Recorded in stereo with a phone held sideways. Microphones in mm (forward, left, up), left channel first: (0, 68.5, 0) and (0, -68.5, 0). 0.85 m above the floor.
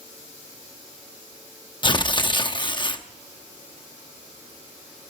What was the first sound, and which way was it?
Tearing paper, 35° left (ahead or behind).